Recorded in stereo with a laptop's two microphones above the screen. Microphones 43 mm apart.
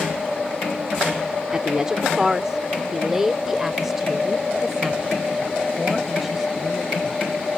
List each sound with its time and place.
1.5 s a woman speaking: 20° right (ahead or behind); by 7.2 s 5° right (ahead or behind)